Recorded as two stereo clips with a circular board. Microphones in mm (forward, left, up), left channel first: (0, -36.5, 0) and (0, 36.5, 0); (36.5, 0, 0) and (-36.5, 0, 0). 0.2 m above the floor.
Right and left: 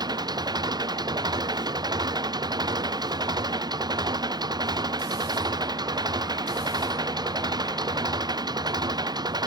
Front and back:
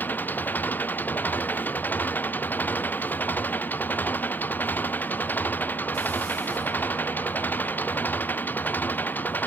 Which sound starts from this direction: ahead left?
An engine running, at 0.0 s.